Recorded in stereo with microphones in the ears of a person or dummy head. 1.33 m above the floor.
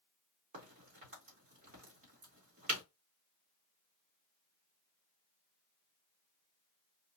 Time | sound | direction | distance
0.5 | a crack | 40° right (ahead or behind) | 2 m